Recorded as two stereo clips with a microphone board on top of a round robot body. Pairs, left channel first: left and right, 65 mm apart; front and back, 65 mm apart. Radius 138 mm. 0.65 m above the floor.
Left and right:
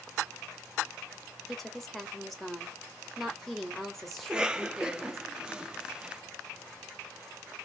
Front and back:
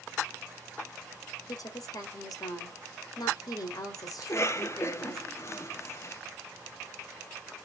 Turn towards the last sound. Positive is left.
turn(degrees=-15)